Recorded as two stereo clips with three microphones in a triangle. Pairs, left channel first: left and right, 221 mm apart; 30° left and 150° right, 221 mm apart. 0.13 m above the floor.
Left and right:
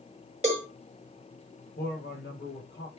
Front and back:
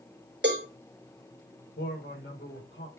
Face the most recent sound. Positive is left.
turn(degrees=60)